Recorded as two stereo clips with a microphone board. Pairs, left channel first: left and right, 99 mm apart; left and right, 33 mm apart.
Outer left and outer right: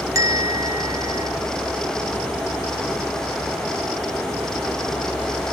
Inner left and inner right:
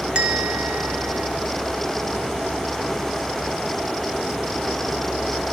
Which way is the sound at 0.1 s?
30° right (ahead or behind).